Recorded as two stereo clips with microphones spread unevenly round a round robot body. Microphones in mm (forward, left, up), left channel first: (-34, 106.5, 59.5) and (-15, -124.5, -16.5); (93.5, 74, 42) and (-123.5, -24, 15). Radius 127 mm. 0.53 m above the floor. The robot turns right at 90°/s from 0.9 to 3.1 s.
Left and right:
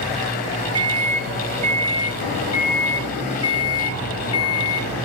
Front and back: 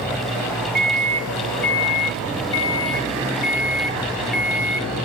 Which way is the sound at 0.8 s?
130° right.